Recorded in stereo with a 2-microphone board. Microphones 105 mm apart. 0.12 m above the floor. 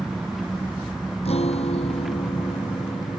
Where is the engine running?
5° right (ahead or behind).